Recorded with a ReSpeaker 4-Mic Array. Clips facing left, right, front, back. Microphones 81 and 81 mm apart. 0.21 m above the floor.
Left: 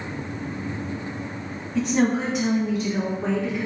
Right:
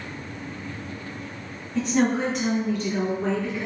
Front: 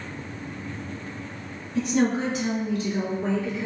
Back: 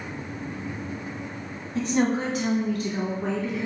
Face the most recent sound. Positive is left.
turn(degrees=175)